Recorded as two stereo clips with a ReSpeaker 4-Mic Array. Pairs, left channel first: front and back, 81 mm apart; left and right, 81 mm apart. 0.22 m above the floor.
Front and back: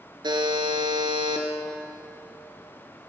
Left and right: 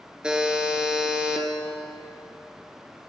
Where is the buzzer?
170° right, 1.7 m.